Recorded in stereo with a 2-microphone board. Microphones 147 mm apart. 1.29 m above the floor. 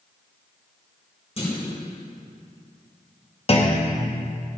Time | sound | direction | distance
1.4 | a clunk | 45° left (ahead or behind) | 3.5 m
3.5 | a clunk | 40° left (ahead or behind) | 1.1 m